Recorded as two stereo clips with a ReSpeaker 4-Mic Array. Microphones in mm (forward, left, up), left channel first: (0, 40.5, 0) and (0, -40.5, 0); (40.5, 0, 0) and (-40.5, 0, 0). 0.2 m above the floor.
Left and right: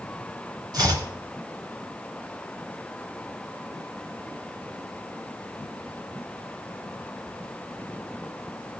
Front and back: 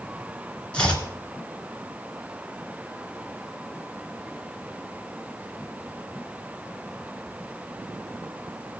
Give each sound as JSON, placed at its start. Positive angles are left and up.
{"t": 0.7, "sound": "chopping", "azimuth_deg": -75, "distance_m": 2.0}